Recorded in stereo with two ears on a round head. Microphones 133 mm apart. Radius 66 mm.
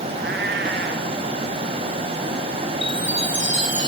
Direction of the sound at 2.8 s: 10° right (ahead or behind).